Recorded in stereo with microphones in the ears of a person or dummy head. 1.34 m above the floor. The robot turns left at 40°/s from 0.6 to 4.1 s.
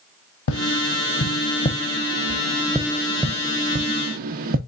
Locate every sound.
0.5 s tapping: 70° left (ahead or behind), 0.7 m; by 4.6 s 55° right (ahead or behind), 0.7 m